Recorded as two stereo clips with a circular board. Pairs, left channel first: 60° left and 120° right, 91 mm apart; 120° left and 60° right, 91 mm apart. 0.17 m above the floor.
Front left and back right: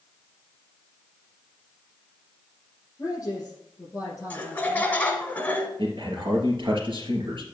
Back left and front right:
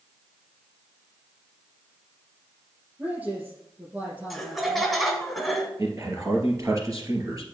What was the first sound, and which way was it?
A man speaking, 5° left.